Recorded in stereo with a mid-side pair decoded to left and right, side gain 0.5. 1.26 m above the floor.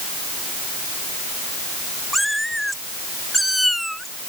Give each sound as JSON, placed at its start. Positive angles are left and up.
{"t": 2.1, "sound": "a cat meowing", "azimuth_deg": 0}